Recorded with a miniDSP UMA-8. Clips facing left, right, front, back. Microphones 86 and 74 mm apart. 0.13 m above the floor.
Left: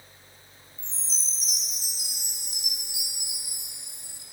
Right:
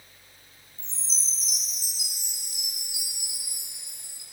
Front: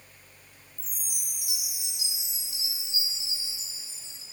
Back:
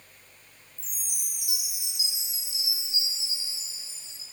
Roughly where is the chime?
Ahead left.